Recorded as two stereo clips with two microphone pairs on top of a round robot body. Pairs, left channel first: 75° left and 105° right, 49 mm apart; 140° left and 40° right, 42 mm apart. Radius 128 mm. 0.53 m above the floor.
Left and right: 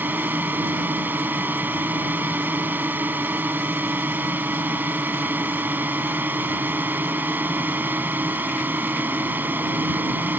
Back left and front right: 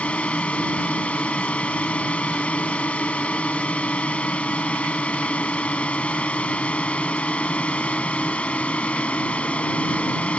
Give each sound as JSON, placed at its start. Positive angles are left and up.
{"t": 0.0, "sound": "a drone", "azimuth_deg": -160}